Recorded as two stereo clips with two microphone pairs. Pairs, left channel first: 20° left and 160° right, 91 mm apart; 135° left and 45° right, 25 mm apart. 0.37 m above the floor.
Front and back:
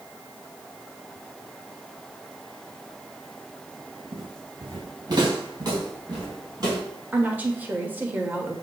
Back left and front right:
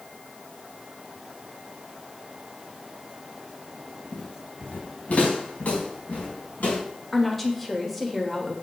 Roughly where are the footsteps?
Behind left.